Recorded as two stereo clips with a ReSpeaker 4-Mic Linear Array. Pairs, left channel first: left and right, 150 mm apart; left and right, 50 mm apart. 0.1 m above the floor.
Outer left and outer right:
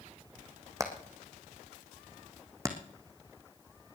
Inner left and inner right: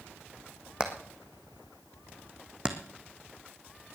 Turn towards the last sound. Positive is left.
turn(degrees=-25)  # may be behind; listen again after turning